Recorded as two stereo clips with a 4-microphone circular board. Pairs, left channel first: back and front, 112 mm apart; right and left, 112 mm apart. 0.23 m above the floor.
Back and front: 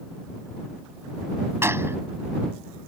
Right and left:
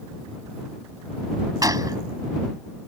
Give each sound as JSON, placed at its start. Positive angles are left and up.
{"t": 1.6, "sound": "a gunshot", "azimuth_deg": 55}